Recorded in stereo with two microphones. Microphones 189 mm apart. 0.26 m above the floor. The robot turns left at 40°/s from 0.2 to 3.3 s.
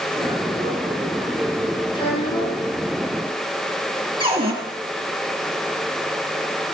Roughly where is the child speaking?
Behind left.